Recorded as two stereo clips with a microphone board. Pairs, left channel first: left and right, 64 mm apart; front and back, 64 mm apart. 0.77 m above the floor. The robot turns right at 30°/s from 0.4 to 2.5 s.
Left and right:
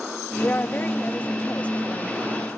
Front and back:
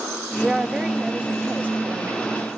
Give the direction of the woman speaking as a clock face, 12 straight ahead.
8 o'clock.